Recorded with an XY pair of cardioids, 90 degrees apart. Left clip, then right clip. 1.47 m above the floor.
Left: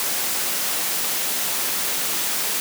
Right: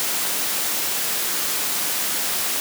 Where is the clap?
No clap in this recording.